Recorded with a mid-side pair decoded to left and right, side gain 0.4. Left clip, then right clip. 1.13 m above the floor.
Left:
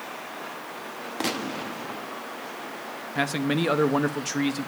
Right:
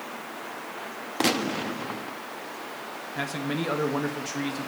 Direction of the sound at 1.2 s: 35° right.